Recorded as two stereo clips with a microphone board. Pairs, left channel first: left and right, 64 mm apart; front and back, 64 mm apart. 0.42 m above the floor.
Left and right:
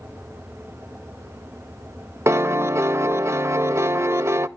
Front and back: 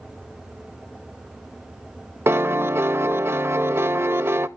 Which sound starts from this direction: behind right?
A piano, at 2.3 s.